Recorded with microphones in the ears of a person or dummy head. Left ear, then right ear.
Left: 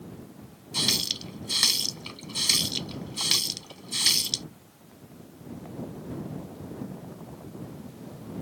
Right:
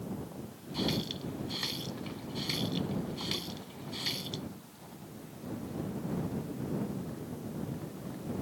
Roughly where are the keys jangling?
No keys jangling in this recording.